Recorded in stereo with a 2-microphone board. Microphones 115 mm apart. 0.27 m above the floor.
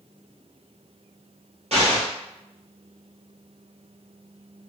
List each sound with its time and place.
1.7 s an explosion: 70° right (ahead or behind), 1.2 m